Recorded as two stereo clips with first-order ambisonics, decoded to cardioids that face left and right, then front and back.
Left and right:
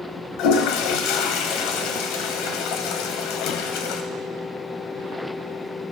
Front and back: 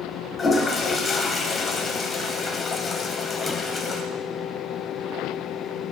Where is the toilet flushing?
75° left, 0.7 m.